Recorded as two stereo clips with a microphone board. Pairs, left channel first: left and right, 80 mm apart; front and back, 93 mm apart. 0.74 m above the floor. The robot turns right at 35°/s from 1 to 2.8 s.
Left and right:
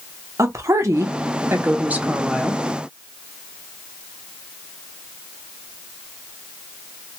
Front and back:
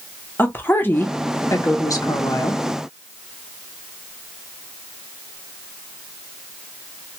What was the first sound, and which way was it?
A woman speaking, 60° right.